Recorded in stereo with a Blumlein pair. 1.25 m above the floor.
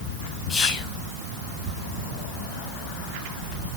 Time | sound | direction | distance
0.5 | whispering | 20° left | 1.2 m